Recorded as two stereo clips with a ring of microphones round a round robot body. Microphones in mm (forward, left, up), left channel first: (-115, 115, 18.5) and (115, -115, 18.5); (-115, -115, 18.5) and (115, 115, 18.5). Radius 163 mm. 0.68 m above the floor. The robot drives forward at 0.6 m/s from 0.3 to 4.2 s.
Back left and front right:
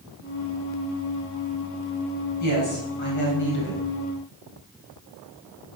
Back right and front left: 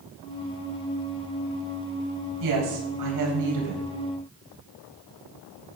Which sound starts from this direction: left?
A woman speaking, at 2.4 s.